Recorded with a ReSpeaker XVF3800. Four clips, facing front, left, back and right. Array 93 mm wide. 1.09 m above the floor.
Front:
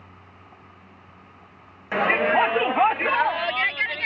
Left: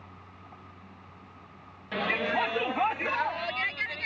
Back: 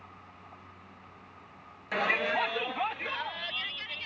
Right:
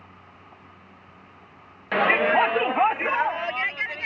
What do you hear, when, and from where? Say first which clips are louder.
1.9 s a shout: right 9 dB, front 9 dB; 60° right; by 4.1 s 20° right